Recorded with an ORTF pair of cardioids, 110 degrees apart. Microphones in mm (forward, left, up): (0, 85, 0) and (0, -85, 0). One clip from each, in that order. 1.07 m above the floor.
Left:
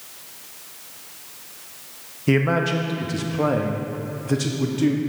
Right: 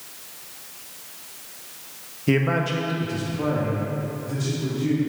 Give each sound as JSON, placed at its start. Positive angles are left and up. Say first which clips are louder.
{"t": 2.3, "sound": "a man speaking", "louder": "left 2 dB", "azimuth_deg": 5, "distance_m": 1.1}